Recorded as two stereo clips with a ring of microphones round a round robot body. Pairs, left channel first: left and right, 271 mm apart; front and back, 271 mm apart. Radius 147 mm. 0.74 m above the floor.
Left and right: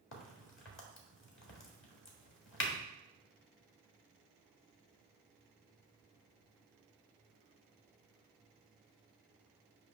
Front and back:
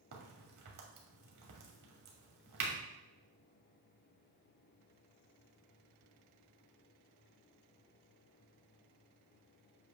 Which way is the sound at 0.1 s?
130° left.